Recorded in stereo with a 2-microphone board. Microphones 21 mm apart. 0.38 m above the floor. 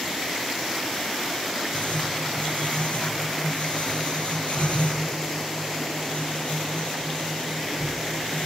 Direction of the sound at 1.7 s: 75° left (ahead or behind).